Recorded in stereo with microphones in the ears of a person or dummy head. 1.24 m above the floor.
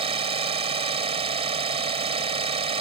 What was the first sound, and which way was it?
An engine running, 35° right (ahead or behind).